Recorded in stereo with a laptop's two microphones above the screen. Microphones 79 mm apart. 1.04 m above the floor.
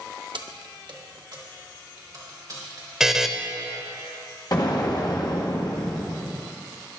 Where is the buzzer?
5° right (ahead or behind), 0.8 m.